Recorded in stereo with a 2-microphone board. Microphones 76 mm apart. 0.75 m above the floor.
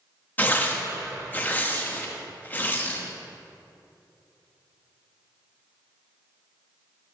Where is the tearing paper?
25° left (ahead or behind), 0.8 m.